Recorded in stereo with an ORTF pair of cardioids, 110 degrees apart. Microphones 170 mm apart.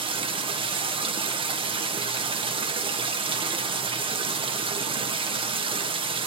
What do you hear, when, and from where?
0.0 s running water: 30° right, 1.3 m